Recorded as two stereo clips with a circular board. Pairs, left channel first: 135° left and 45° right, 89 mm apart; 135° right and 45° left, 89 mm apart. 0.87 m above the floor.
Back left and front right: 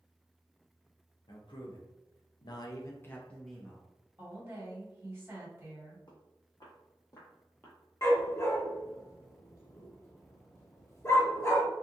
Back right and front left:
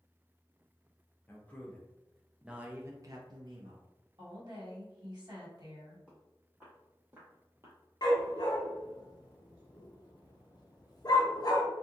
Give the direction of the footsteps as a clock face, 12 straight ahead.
8 o'clock.